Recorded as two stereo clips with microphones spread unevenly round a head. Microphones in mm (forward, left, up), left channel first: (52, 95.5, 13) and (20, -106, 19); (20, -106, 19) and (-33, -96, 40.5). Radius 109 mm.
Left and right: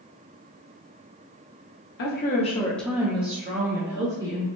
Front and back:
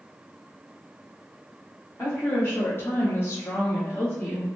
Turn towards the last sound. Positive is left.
turn(degrees=-75)